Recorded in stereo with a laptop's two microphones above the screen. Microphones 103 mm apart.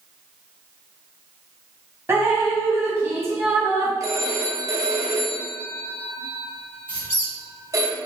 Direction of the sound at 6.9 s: 25° right (ahead or behind).